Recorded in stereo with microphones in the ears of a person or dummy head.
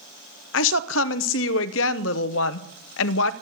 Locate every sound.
0.5 s a woman speaking: 75° left (ahead or behind), 0.8 m